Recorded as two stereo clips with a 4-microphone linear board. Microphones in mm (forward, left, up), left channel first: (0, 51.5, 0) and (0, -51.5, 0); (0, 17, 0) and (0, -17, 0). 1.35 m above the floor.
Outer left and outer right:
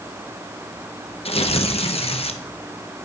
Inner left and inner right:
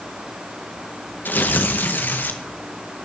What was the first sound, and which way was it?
Tearing paper, 70° left (ahead or behind).